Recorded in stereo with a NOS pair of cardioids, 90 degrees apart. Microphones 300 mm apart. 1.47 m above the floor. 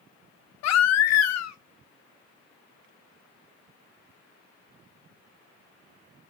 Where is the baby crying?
65° left, 0.6 m.